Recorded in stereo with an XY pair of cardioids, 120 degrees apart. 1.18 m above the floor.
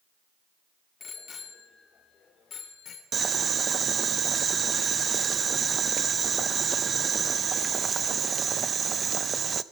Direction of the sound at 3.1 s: 35° right.